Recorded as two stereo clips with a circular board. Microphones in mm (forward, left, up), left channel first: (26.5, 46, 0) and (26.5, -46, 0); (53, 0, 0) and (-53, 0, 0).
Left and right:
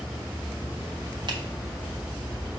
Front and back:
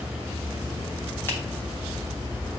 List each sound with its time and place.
1.3 s a finger snap: 65° right, 1.5 m